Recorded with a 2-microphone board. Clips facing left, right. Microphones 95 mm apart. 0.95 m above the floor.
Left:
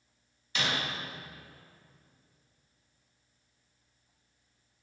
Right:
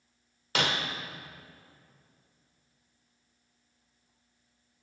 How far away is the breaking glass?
About 1.4 m.